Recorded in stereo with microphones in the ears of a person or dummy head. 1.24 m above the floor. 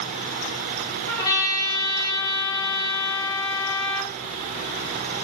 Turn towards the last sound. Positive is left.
turn(degrees=20)  # may be behind; listen again after turning